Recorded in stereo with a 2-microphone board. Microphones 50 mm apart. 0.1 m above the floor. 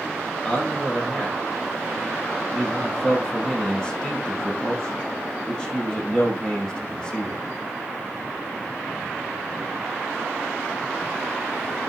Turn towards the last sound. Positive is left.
turn(degrees=15)  # may be behind; listen again after turning